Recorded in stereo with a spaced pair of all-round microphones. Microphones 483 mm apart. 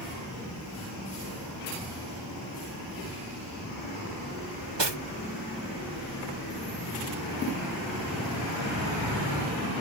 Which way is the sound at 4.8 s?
60° right (ahead or behind).